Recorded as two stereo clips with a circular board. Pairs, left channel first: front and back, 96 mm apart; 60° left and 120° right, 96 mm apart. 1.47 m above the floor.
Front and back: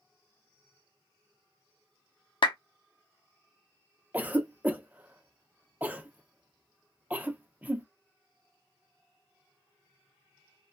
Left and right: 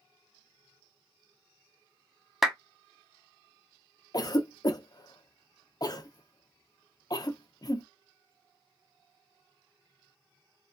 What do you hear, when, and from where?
2.4 s a clap: 35° right, 0.6 m
4.1 s a cough: 110° left, 0.6 m